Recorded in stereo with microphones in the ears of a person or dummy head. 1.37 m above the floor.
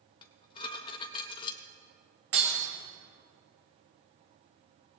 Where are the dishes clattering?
30° left (ahead or behind), 0.7 m.